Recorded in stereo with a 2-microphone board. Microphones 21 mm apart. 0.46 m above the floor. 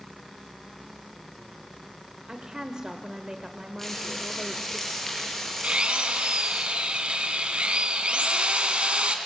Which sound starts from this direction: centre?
Frying, at 3.8 s.